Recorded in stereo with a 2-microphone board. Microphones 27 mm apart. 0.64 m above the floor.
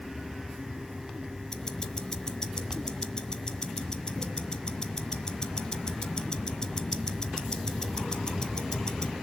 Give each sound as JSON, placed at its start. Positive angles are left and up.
{"t": 1.5, "sound": "ticking", "side_deg": 30, "distance_m": 1.1}